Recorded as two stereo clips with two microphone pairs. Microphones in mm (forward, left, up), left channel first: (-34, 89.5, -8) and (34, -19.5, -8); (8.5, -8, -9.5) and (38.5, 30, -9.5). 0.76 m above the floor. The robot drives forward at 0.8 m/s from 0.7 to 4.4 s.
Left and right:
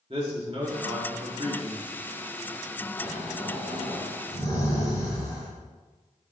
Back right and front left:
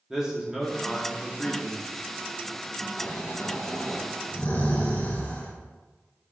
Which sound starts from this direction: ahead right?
A man speaking, at 0.1 s.